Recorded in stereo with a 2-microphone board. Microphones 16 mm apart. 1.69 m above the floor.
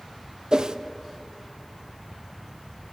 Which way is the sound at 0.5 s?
55° right (ahead or behind).